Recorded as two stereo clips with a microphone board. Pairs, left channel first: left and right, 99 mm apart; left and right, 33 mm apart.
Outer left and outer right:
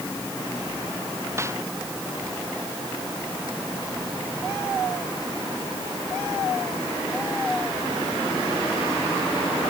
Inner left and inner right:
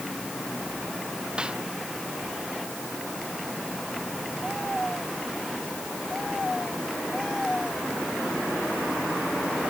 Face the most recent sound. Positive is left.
turn(degrees=-30)  # may be behind; listen again after turning